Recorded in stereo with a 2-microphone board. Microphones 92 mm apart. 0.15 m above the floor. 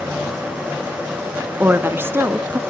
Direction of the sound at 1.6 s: 25° right (ahead or behind).